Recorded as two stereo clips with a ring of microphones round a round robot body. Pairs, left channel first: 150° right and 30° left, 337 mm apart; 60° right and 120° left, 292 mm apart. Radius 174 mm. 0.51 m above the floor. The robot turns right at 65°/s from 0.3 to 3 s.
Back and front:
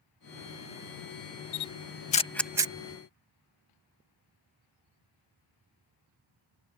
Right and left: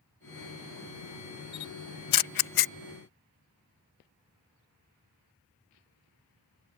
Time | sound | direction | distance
1.5 | a camera shutter | 120° right | ?